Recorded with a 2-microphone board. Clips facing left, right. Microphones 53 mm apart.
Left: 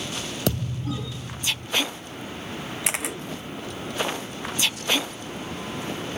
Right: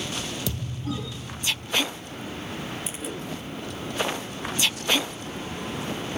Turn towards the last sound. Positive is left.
turn(degrees=70)  # may be behind; listen again after turning